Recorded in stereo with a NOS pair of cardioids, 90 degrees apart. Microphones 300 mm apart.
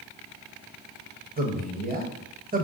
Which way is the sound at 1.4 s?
30° right.